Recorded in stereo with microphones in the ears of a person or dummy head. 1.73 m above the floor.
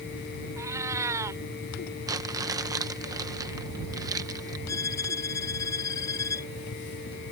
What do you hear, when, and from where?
0.6 s a cat meowing: 20° right (ahead or behind)
2.1 s crumpling: 20° right (ahead or behind)
4.7 s a violin: 20° left (ahead or behind)